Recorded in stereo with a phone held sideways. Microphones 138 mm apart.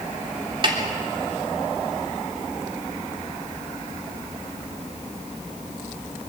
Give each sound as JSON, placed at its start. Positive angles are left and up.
{"t": 0.6, "sound": "a snare drum", "side_deg": -40, "distance_m": 3.5}